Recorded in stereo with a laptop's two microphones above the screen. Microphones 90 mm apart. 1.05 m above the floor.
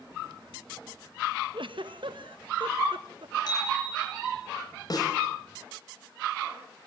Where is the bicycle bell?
50° left (ahead or behind), 8 m.